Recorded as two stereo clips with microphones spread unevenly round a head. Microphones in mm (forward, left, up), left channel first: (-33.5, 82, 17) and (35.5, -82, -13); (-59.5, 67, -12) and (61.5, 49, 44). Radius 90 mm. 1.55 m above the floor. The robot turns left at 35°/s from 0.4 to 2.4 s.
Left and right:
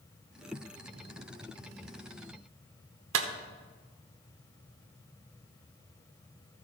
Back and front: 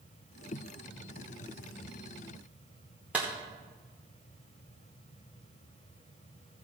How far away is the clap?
About 1.0 m.